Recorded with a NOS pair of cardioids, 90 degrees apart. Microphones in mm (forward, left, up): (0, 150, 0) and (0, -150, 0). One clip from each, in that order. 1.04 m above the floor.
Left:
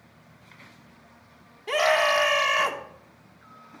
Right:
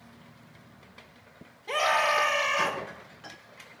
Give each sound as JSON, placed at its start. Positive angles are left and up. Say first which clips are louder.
{"t": 1.7, "sound": "a scream", "louder": "left 3 dB", "azimuth_deg": 55, "distance_m": 2.5}